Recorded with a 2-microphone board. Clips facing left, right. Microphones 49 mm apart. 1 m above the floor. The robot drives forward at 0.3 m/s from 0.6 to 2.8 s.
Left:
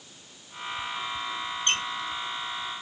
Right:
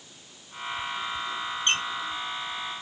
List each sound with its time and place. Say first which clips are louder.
1.7 s a squeak: right 2 dB; 30° right (ahead or behind), 1.3 m